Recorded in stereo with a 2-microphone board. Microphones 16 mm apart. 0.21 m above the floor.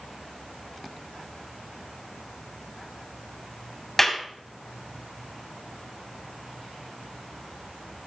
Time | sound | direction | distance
4.0 | a clap | 20° left (ahead or behind) | 1.2 m